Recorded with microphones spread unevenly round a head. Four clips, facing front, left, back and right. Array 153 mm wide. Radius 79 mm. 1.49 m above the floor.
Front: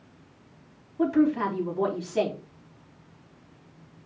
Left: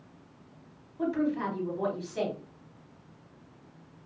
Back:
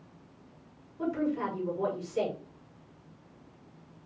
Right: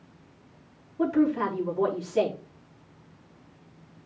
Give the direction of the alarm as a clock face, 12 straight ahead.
I don't hear an alarm.